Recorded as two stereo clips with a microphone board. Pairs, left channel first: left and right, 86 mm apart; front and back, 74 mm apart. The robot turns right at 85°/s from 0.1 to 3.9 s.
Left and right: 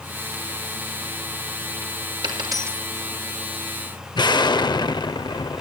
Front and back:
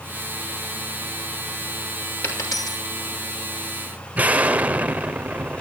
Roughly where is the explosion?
Behind left.